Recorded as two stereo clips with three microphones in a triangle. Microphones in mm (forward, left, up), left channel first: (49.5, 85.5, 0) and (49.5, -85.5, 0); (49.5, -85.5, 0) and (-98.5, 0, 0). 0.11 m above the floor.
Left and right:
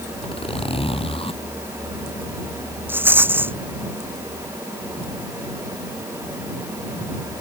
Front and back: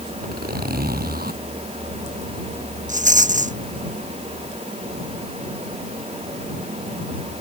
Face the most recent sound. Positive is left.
turn(degrees=-170)